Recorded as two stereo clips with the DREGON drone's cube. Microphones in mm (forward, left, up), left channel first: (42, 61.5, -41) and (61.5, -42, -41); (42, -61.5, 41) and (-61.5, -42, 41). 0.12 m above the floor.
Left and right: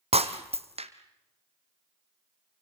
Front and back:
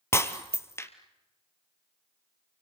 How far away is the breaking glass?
About 1.5 m.